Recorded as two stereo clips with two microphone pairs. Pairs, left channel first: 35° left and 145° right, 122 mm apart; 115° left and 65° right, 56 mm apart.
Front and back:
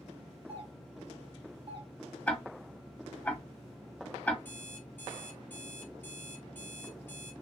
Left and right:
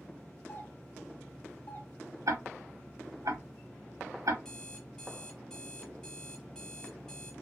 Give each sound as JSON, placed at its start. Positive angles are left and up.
{"t": 0.5, "sound": "a doorbell", "azimuth_deg": 170, "distance_m": 1.2}
{"t": 2.3, "sound": "ticking", "azimuth_deg": -45, "distance_m": 0.8}
{"t": 4.5, "sound": "an alarm clock", "azimuth_deg": 65, "distance_m": 1.0}